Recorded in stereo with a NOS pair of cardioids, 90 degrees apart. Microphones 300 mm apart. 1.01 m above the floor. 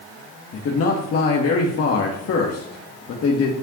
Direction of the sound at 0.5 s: 50° left.